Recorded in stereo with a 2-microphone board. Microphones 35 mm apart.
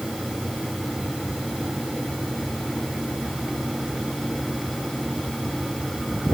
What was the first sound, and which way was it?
Only background noise.